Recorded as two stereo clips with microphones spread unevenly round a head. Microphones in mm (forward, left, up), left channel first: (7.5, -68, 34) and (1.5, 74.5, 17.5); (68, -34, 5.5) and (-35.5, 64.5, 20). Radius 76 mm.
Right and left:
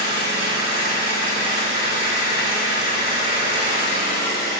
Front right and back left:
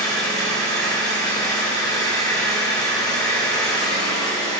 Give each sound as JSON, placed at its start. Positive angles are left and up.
{"t": 0.0, "sound": "an engine running", "azimuth_deg": -115, "distance_m": 4.5}